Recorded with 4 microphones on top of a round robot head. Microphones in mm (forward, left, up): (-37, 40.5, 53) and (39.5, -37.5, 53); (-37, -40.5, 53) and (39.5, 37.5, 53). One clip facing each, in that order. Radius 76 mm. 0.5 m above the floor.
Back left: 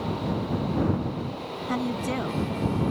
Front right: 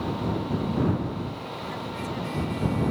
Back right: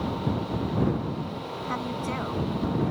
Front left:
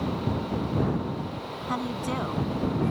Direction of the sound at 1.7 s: 120° left.